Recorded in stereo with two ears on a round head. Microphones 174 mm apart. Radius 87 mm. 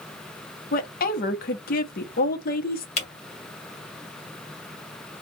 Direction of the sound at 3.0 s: 35° left (ahead or behind).